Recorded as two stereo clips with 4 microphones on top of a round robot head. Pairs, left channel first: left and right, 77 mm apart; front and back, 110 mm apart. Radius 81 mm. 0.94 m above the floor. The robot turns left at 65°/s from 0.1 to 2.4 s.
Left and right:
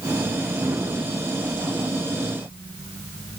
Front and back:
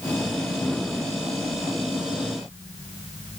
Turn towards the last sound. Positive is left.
No sound to turn to.